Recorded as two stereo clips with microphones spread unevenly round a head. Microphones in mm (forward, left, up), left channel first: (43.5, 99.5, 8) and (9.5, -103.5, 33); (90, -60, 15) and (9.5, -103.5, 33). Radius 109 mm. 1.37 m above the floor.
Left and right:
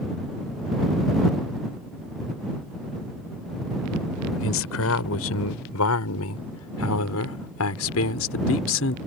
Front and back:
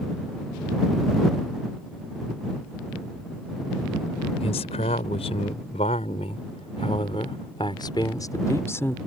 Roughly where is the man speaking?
Ahead left.